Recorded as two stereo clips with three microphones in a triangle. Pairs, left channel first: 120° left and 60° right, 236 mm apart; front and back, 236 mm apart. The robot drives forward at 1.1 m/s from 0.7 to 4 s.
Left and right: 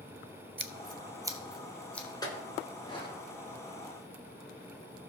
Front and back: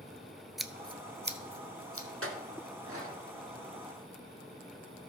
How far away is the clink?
About 1.8 m.